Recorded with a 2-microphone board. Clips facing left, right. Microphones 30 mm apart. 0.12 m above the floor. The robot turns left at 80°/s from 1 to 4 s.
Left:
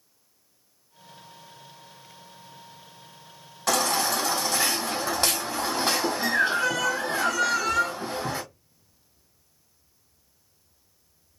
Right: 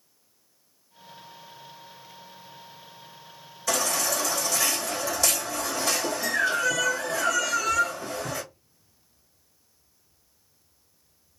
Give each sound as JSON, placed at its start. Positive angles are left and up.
{"t": 3.7, "sound": "a baby crying", "side_deg": 60, "distance_m": 2.5}